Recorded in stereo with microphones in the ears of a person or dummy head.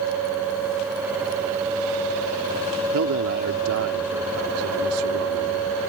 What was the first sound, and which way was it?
A man speaking, 80° right.